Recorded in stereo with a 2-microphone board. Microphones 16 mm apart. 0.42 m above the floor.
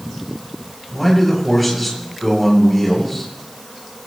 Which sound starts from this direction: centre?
A man speaking, at 0.9 s.